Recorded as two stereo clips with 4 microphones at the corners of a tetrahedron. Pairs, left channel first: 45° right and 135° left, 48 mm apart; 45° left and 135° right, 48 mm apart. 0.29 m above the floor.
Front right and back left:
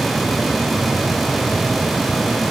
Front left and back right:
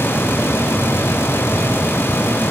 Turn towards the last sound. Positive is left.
No sound to turn to.